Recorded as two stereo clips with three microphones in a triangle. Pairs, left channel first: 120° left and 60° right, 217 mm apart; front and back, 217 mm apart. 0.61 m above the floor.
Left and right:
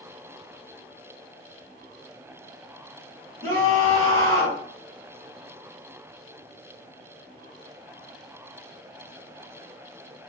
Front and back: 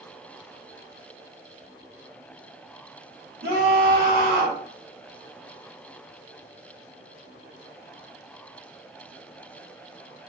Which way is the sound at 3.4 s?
170° left.